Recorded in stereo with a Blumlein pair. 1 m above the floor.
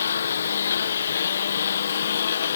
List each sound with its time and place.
0.0 s a lawn mower: 70° left; by 2.6 s 65° left